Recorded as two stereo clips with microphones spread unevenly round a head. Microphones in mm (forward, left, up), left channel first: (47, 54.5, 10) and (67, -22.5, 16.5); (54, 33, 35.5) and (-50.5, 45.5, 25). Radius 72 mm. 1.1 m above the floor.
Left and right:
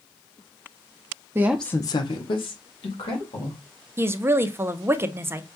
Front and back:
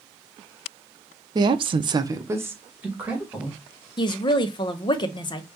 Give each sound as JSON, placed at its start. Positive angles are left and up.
{"t": 1.4, "sound": "a woman speaking", "azimuth_deg": -140, "distance_m": 0.6}
{"t": 4.0, "sound": "a woman speaking", "azimuth_deg": -25, "distance_m": 0.5}